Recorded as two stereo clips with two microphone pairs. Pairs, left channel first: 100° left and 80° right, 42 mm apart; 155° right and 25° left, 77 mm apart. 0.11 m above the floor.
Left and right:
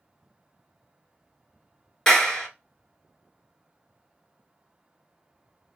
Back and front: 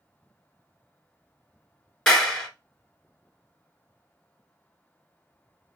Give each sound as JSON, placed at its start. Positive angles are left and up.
{"t": 2.1, "sound": "a clap", "azimuth_deg": 135, "distance_m": 1.0}